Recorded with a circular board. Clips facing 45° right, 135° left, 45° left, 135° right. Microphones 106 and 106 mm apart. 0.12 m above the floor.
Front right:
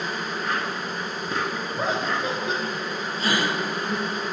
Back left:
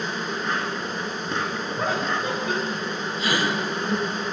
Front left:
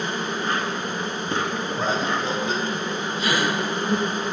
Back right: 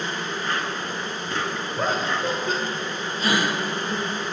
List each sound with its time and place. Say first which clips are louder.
0.0 s an insect: back left 1 dB, front left 2 dB; 35° left, 1.7 m
1.8 s laughter: even, even; 105° right, 3.5 m
3.2 s a gasp: even, back right 1 dB; 90° right, 4.5 m